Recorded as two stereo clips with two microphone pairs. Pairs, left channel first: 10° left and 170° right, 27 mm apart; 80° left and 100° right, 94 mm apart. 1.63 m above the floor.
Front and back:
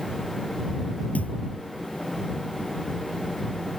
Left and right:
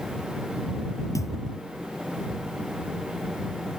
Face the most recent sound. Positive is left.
turn(degrees=25)